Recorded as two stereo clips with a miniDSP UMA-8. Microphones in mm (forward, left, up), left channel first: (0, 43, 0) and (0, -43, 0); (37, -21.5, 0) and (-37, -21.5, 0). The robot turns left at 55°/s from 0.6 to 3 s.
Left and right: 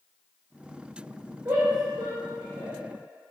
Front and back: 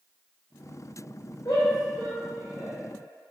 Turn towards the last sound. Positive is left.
turn(degrees=-125)